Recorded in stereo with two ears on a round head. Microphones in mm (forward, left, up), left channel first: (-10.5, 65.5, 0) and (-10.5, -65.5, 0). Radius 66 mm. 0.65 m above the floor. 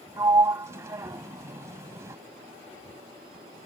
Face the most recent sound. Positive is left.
turn(degrees=-20)  # may be behind; listen again after turning